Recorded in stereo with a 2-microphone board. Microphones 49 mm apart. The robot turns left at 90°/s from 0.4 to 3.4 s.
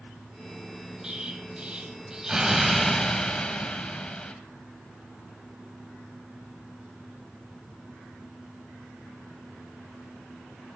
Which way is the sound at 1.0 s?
15° right (ahead or behind).